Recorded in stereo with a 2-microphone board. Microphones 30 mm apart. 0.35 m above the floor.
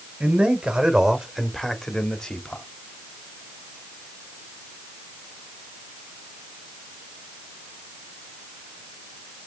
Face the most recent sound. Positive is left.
turn(degrees=35)  # may be behind; listen again after turning